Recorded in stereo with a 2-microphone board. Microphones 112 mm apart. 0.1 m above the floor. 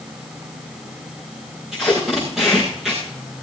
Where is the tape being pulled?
5° right (ahead or behind), 6.5 m.